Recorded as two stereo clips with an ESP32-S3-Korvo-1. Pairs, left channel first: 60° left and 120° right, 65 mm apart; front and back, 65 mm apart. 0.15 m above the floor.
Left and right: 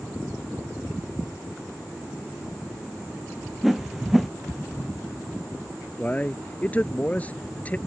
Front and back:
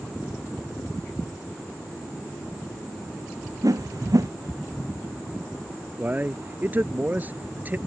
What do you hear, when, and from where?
3.6 s a whoosh: 155° left
6.0 s a man speaking: 125° left